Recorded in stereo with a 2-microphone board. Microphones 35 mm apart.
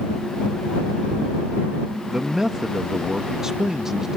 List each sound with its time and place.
2.1 s a man speaking: 15° right (ahead or behind)